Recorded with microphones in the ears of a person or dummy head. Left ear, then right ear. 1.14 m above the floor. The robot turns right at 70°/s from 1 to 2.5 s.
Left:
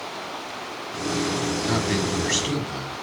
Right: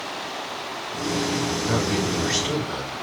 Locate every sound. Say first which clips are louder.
1.7 s a man speaking: even; 60° left (ahead or behind), 1.2 m; by 3.0 s 15° left (ahead or behind), 1.2 m